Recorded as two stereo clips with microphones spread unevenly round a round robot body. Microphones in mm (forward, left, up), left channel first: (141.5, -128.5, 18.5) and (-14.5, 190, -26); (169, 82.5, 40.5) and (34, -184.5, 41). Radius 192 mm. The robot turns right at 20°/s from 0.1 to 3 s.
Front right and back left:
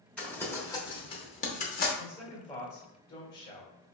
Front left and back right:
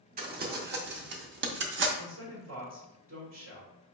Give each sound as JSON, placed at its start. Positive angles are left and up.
{"t": 0.2, "sound": "crumpling", "azimuth_deg": -160, "distance_m": 0.7}
{"t": 2.0, "sound": "a man speaking", "azimuth_deg": -145, "distance_m": 1.5}